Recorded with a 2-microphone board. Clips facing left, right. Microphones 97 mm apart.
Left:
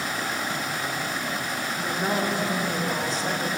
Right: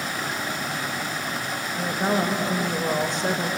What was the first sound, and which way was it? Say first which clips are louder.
A woman speaking: right 3 dB; 35° right (ahead or behind).